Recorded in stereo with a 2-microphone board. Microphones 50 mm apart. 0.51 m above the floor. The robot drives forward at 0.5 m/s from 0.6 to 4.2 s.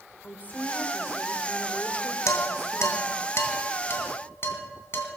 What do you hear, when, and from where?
0.2 s a woman speaking: 35° left (ahead or behind), 1.7 m; by 3.2 s 45° left (ahead or behind), 1.3 m
2.3 s dishes clattering: 70° left (ahead or behind), 2 m; by 5.1 s 50° left (ahead or behind), 2.5 m